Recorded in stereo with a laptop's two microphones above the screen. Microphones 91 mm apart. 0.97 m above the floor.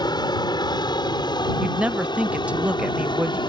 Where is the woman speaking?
15° right (ahead or behind).